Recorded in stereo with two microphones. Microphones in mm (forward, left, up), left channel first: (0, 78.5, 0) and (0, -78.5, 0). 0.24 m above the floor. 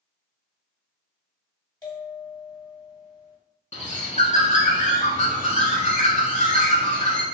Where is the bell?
25° left (ahead or behind), 1.5 m.